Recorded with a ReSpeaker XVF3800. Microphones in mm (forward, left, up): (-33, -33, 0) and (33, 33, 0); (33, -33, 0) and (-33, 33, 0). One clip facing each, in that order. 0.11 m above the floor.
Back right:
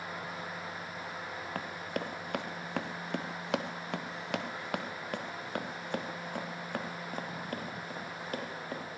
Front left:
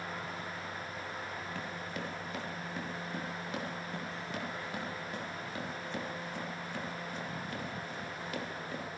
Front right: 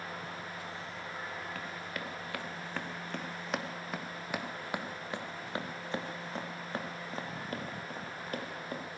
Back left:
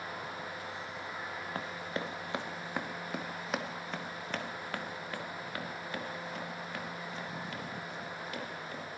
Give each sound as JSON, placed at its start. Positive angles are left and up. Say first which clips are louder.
{"t": 1.6, "sound": "running footsteps", "louder": "back right 3 dB, back left 3 dB", "azimuth_deg": -170, "distance_m": 2.5}